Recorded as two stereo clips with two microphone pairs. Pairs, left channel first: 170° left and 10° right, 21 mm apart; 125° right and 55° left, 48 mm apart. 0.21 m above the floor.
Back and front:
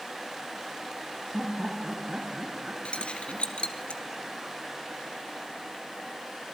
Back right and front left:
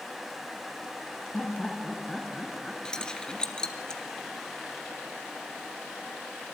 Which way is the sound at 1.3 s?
65° right.